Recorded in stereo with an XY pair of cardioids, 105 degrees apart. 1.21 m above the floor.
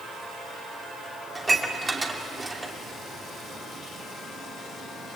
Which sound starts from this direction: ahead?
Dishes clattering, at 1.4 s.